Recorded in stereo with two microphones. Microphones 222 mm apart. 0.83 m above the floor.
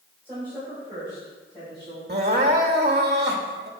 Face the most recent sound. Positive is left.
turn(degrees=-45)  # may be behind; listen again after turning